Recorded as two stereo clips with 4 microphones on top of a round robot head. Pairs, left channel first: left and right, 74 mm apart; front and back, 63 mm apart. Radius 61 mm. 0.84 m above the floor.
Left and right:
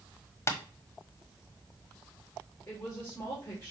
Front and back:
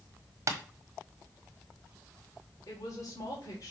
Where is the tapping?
140° left, 1.3 m.